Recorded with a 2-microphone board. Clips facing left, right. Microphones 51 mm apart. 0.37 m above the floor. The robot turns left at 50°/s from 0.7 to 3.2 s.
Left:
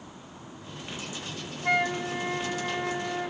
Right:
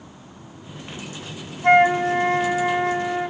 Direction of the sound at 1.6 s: 65° right.